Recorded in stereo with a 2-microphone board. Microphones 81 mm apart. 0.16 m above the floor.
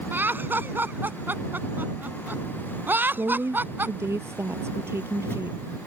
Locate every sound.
0.1 s laughter: 25° right (ahead or behind)
3.1 s a woman speaking: 30° right (ahead or behind)